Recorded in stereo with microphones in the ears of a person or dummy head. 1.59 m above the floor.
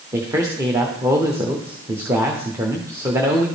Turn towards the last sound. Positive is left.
turn(degrees=-15)  # may be behind; listen again after turning